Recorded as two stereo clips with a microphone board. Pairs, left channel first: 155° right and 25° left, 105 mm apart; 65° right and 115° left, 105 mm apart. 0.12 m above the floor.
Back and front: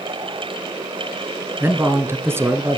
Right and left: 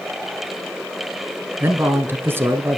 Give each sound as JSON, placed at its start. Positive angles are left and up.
{"t": 1.6, "sound": "a man speaking", "azimuth_deg": 65, "distance_m": 1.2}